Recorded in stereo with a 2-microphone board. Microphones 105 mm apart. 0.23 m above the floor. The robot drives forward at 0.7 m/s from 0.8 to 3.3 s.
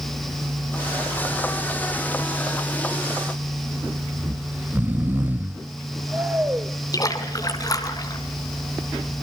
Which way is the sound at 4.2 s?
15° right (ahead or behind).